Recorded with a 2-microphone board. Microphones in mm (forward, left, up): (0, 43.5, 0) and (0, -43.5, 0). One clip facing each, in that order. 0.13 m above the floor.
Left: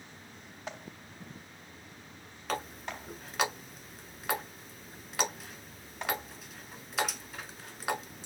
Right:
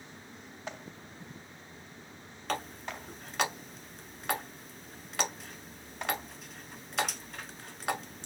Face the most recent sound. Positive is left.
turn(degrees=5)  # may be behind; listen again after turning